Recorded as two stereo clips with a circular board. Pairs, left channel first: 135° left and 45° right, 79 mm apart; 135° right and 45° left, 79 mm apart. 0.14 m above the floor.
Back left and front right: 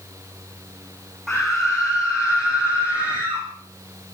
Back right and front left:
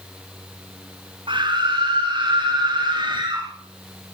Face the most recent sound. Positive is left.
turn(degrees=25)